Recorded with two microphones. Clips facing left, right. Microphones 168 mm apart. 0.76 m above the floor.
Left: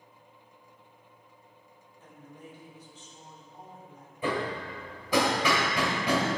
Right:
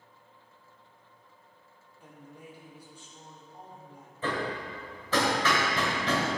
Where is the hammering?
15° left (ahead or behind), 1.5 m.